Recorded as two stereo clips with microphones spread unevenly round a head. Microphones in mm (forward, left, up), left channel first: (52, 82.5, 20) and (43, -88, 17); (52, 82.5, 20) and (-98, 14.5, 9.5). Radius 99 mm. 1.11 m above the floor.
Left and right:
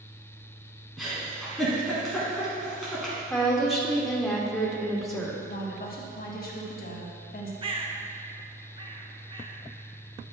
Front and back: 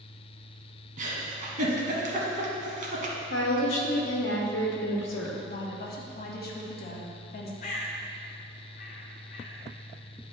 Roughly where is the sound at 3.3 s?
Ahead.